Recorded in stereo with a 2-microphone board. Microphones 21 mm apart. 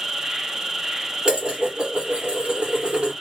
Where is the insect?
20° right (ahead or behind), 0.8 m.